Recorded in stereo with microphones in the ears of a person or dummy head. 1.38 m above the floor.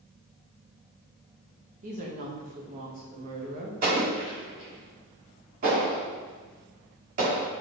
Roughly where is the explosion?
Right.